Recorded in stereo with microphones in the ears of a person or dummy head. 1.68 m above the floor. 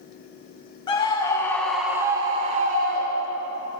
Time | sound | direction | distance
0.9 | a scream | 30° left (ahead or behind) | 0.9 m